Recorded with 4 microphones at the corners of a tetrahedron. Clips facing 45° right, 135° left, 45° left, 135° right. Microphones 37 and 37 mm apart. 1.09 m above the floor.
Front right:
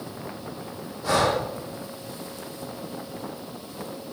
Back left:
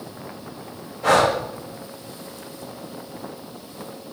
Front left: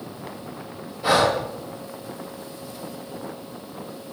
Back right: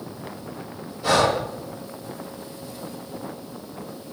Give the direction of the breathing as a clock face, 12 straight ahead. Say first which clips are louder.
Back left 5 dB, even; 8 o'clock.